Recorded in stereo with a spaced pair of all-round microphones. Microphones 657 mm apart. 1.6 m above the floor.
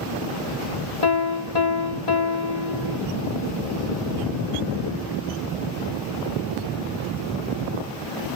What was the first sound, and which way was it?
A piano, 75° left (ahead or behind).